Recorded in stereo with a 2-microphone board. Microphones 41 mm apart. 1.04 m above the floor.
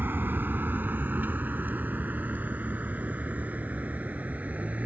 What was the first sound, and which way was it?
A vehicle, 60° right (ahead or behind).